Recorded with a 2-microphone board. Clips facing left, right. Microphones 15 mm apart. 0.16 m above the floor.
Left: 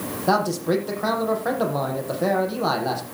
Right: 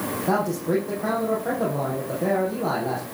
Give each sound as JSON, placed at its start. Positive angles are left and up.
{"t": 0.3, "sound": "a man speaking", "side_deg": 60, "distance_m": 7.5}